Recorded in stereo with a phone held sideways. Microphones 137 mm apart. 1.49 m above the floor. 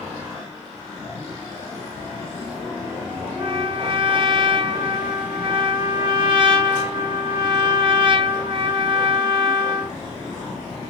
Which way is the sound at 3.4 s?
40° right (ahead or behind).